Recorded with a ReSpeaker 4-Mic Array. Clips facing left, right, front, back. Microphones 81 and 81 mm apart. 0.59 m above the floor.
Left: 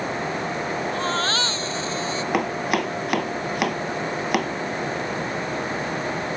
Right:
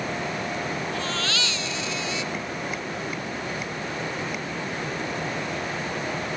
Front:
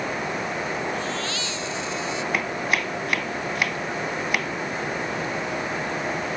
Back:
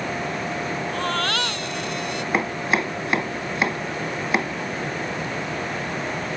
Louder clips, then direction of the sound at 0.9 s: Left 5 dB, back 4 dB; 145° left.